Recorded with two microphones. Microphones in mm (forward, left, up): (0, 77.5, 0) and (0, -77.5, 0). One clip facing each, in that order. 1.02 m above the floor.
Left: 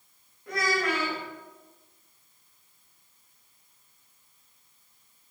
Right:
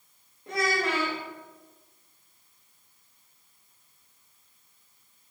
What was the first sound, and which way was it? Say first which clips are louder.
A child speaking: even; 25° right (ahead or behind).